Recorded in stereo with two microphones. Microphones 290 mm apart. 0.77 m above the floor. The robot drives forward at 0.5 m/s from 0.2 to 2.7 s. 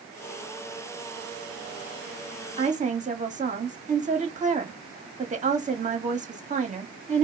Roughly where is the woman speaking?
Right.